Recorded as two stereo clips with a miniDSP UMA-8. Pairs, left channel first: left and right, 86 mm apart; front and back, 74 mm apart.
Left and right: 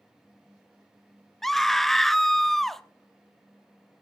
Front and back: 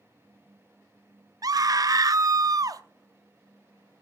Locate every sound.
1.4 s a scream: 175° left, 0.8 m